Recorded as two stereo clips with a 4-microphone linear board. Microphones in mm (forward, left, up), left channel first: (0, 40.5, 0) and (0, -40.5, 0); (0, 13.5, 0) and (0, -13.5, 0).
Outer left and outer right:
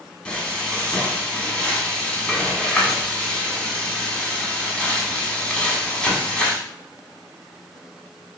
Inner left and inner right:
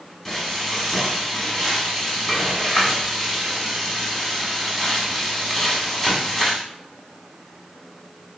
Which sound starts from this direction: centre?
Frying, at 0.2 s.